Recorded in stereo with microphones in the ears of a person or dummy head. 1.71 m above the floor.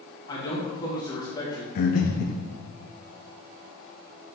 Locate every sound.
0.3 s a man speaking: 25° left (ahead or behind), 2 m
1.8 s breathing: 55° left (ahead or behind), 0.8 m